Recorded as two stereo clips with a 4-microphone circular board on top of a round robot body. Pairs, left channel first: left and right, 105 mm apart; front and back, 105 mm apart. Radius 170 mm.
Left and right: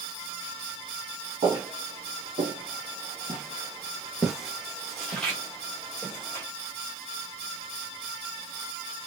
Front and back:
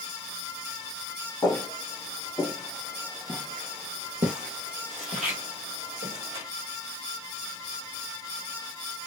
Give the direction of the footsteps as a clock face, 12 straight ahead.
2 o'clock.